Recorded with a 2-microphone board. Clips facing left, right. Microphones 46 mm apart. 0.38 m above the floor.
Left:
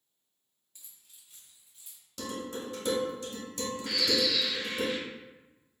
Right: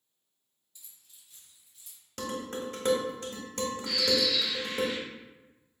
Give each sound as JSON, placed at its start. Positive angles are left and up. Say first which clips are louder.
{"t": 0.8, "sound": "keys jangling", "louder": "even", "side_deg": 45, "distance_m": 1.1}
{"t": 2.2, "sound": "dishes clattering", "louder": "right 2 dB", "side_deg": -55, "distance_m": 1.1}
{"t": 3.9, "sound": "a bird", "louder": "even", "side_deg": 40, "distance_m": 0.7}